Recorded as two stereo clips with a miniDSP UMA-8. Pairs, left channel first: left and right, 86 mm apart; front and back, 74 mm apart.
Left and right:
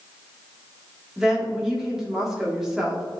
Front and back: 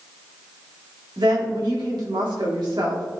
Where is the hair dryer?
No hair dryer in this recording.